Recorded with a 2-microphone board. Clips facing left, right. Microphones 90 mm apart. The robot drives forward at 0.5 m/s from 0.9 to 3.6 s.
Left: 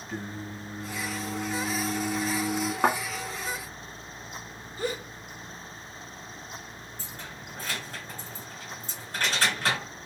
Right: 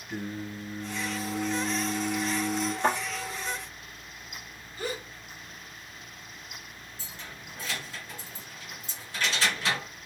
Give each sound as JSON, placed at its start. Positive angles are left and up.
{"t": 0.1, "sound": "singing", "side_deg": 5, "distance_m": 1.6}
{"t": 2.8, "sound": "a thud", "side_deg": 85, "distance_m": 1.7}
{"t": 4.8, "sound": "a gasp", "side_deg": 35, "distance_m": 2.0}
{"t": 7.0, "sound": "keys jangling", "side_deg": 45, "distance_m": 2.0}